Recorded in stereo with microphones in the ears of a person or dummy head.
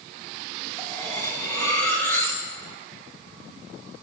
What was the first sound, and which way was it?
Cutlery clinking, 20° left (ahead or behind).